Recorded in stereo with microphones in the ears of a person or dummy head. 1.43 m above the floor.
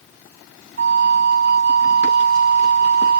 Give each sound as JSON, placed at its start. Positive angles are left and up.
{"t": 0.8, "sound": "a flute", "side_deg": -60}